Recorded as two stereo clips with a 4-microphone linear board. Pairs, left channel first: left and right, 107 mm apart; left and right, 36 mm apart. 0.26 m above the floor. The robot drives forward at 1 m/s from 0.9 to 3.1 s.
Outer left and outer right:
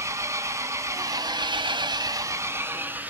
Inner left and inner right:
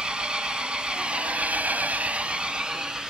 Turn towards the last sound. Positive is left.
turn(degrees=-15)  # may be behind; listen again after turning